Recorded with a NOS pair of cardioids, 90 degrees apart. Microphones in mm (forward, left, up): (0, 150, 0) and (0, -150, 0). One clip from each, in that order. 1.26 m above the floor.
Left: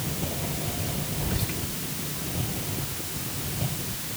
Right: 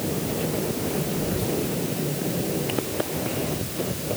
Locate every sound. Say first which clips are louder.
1.2 s whispering: right 6 dB; 55° left, 5 m